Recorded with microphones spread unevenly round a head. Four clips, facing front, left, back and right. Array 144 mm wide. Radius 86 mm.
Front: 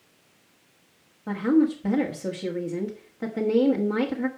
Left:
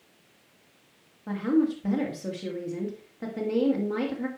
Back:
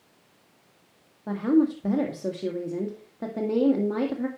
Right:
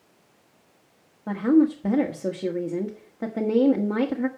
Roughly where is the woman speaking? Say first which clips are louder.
Right 5 dB, front 1 dB; right.